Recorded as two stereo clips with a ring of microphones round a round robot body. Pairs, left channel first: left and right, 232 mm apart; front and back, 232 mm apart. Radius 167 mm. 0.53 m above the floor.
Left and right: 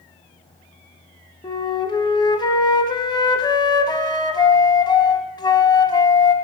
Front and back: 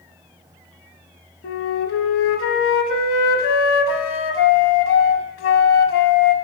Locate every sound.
1.4 s a flute: 20° left, 0.7 m